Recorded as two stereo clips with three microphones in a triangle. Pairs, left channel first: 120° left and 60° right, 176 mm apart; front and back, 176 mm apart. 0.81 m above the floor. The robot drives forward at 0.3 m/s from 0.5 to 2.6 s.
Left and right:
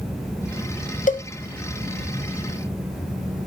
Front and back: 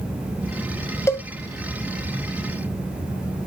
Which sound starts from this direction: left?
A cowbell, at 1.1 s.